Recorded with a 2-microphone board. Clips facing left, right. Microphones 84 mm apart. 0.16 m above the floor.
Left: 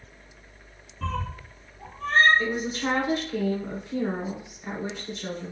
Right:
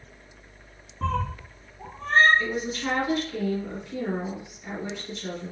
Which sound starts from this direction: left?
A woman speaking, at 2.4 s.